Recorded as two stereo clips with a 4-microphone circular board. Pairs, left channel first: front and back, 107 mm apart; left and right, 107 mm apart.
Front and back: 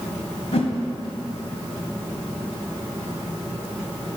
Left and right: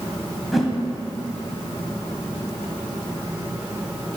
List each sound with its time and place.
0.5 s a whoosh: straight ahead, 1.4 m